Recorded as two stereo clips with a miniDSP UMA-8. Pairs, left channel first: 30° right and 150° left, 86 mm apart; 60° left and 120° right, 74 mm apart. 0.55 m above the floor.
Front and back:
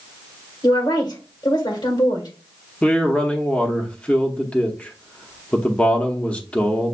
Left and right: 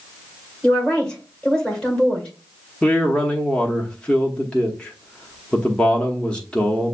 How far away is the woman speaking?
About 1.7 m.